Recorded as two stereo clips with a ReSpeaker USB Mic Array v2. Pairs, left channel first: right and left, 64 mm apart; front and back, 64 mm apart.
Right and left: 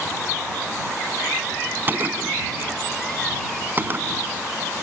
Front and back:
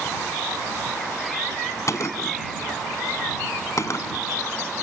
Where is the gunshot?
35° left.